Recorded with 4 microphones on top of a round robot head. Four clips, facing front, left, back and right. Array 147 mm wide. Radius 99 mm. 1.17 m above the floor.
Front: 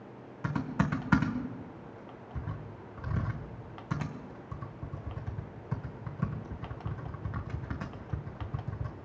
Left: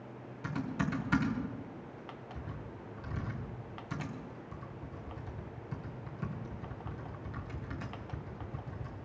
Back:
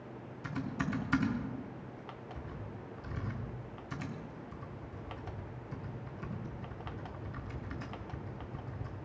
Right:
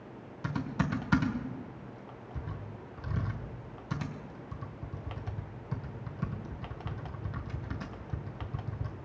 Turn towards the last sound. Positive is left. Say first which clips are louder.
# right 2 dB, front 5 dB
turn(degrees=-20)